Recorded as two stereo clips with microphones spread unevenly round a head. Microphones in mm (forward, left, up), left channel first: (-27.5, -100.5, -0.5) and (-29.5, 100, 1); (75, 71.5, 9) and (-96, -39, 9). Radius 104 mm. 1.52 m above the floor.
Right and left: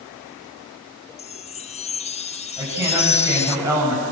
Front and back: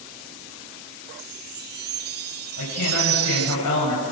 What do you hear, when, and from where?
1.2 s a chime: 135° right, 0.5 m
2.6 s a woman speaking: 10° left, 8 m